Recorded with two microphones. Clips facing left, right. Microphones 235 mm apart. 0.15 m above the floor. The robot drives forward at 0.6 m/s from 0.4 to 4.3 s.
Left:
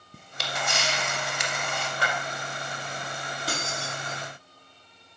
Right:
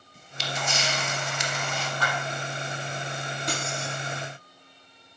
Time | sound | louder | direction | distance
0.1 | a camera shutter | even | 60° left (ahead or behind) | 1.2 m
2.0 | a clap | left 1 dB | 65° left (ahead or behind) | 3.5 m
3.5 | keys jangling | right 1 dB | 5° left (ahead or behind) | 3 m